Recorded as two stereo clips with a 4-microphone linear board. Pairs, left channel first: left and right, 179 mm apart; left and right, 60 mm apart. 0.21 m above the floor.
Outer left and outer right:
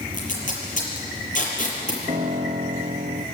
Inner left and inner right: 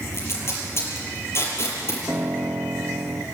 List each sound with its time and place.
0.1 s tape being pulled: 50° left (ahead or behind), 6 m
2.1 s a piano: 30° right (ahead or behind), 2.5 m